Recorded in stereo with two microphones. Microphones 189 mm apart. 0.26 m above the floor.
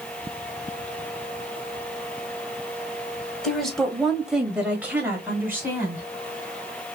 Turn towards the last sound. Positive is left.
turn(degrees=-10)  # may be behind; listen again after turning